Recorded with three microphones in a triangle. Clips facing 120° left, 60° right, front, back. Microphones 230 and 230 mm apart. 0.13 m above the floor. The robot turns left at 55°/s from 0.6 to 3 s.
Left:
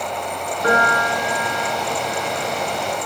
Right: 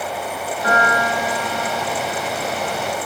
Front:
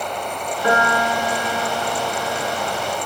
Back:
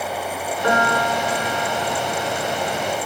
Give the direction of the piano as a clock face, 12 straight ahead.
9 o'clock.